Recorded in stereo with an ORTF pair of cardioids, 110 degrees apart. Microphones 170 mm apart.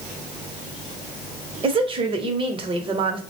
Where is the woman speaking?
35° right, 0.9 m.